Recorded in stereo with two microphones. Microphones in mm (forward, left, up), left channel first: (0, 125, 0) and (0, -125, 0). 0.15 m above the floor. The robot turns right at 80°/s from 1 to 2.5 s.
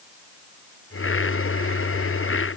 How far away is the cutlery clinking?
No cutlery clinking in this recording.